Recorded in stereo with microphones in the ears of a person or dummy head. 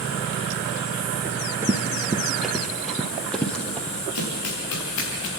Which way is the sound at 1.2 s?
10° right (ahead or behind).